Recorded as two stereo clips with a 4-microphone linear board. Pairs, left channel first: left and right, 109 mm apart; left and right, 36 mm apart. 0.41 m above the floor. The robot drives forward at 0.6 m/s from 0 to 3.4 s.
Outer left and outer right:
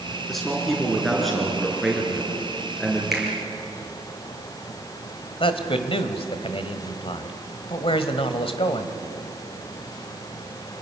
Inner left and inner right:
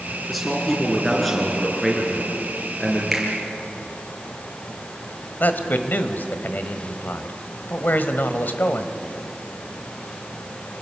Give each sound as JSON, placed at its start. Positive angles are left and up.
{"t": 0.3, "sound": "a man speaking", "side_deg": 0, "distance_m": 5.5}
{"t": 3.1, "sound": "a finger snap", "side_deg": 0, "distance_m": 6.5}
{"t": 5.4, "sound": "a man speaking", "side_deg": 55, "distance_m": 1.7}